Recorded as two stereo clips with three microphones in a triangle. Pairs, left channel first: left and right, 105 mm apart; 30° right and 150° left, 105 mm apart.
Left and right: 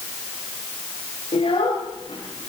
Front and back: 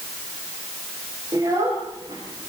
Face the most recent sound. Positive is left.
turn(degrees=110)